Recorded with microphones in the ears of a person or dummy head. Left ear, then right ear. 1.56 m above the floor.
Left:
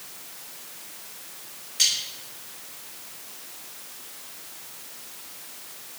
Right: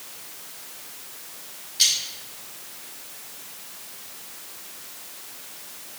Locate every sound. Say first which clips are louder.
1.8 s cutlery clinking: right 2 dB; 25° left (ahead or behind), 3.5 m